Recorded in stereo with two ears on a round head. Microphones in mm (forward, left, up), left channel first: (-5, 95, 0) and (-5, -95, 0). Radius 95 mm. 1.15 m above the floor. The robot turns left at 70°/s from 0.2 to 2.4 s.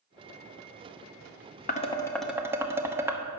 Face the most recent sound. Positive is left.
turn(degrees=-10)  # may be behind; listen again after turning